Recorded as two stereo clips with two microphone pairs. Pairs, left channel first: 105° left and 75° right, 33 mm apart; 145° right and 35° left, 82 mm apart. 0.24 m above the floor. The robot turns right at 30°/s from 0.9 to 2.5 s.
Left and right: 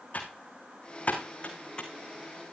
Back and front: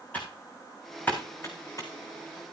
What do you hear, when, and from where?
0.1 s typing on a keyboard: 140° left, 3 m; by 1.9 s 170° left, 3 m